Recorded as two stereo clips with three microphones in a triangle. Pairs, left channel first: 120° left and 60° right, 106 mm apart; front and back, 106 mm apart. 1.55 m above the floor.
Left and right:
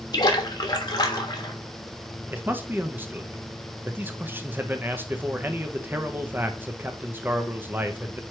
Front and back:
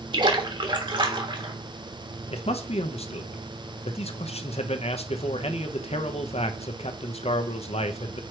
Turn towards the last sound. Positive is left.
turn(degrees=10)